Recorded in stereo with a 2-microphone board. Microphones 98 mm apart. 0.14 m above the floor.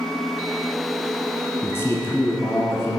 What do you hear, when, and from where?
1.6 s a man speaking: 25° left (ahead or behind), 1.4 m